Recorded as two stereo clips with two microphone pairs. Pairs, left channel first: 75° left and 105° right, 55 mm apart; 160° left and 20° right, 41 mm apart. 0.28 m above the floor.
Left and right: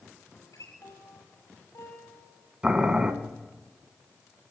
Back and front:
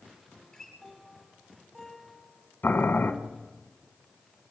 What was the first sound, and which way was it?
A guitar, 80° left.